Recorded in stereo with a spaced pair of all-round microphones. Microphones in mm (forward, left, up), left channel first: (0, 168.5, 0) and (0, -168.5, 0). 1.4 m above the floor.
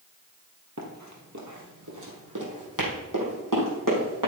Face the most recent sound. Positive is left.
turn(degrees=-75)  # may be behind; listen again after turning